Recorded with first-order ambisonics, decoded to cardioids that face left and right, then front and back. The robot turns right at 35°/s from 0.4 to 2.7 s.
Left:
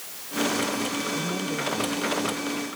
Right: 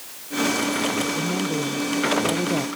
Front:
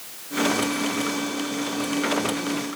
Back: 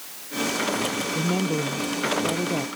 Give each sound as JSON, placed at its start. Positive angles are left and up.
{"t": 1.1, "sound": "a woman speaking", "azimuth_deg": -170}